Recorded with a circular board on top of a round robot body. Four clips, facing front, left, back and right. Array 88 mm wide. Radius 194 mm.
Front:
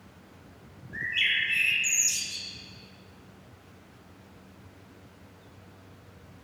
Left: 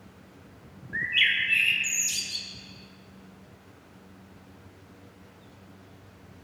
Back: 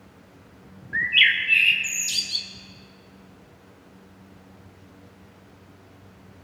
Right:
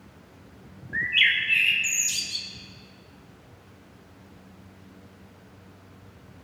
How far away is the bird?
About 0.6 m.